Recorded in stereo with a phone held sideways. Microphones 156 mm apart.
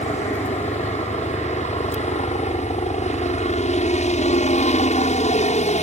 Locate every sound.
0.0 s a helicopter: 45° left (ahead or behind)